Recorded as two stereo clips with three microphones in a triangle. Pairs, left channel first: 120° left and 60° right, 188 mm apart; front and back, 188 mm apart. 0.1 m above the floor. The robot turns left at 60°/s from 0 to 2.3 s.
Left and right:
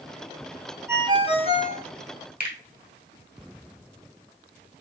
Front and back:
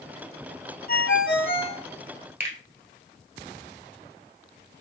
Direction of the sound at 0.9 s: 20° left.